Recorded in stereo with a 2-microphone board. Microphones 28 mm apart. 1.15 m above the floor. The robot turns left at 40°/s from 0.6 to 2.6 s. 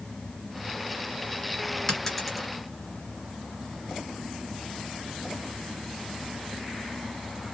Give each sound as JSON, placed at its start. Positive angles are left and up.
{"t": 1.9, "sound": "a dropped coin", "side_deg": 20, "distance_m": 2.0}